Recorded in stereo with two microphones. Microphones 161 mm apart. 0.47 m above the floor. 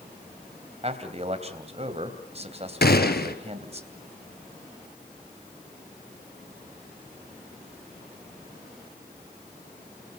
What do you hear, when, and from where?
0.8 s a man speaking: 40° right (ahead or behind), 3 m
2.8 s a gunshot: 75° left (ahead or behind), 1.6 m